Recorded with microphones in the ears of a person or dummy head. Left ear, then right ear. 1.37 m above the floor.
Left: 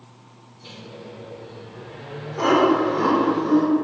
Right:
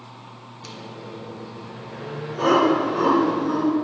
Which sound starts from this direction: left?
Laughter, at 2.4 s.